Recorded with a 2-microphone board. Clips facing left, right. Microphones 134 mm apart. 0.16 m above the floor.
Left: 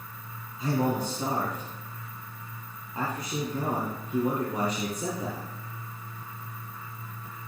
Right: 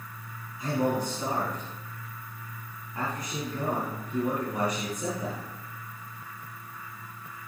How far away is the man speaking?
About 3.5 m.